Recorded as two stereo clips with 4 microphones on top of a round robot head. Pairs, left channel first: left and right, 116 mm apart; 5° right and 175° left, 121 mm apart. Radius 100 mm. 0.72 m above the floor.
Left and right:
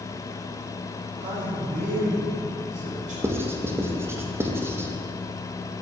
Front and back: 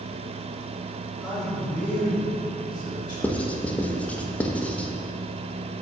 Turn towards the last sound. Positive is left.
turn(degrees=-65)